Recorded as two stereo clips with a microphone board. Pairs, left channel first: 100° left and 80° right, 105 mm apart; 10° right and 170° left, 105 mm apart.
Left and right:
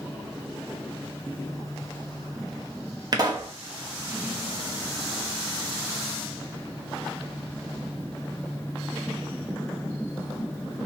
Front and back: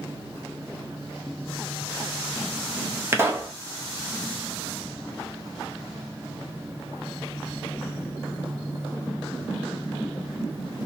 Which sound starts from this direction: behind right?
A pop, at 3.1 s.